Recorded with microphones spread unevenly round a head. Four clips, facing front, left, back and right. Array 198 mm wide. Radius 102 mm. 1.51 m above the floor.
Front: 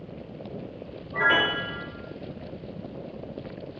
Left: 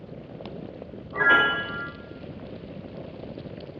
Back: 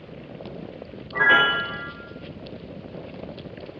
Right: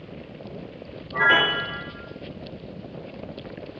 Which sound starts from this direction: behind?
A piano, at 1.1 s.